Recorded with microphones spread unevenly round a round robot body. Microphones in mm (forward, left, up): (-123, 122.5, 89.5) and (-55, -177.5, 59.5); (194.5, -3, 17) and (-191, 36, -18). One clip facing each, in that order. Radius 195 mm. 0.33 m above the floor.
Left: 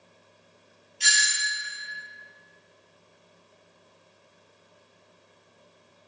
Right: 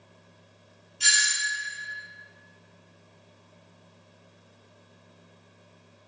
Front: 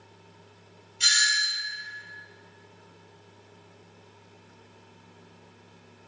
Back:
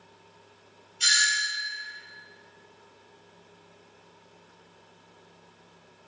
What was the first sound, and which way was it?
A doorbell, 20° right.